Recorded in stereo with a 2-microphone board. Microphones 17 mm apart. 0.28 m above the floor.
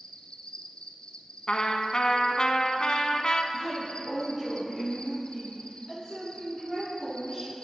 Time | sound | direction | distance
0.0 | an insect | 60° left (ahead or behind) | 0.9 m
1.5 | a trumpet | 50° left (ahead or behind) | 0.7 m
3.5 | a woman speaking | 35° right (ahead or behind) | 3 m